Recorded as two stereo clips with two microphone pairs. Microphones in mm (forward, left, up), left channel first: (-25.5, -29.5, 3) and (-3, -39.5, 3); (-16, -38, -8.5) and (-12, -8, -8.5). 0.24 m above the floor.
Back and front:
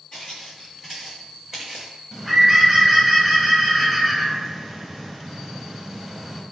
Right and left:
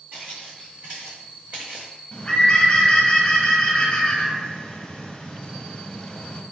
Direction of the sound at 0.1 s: 100° left.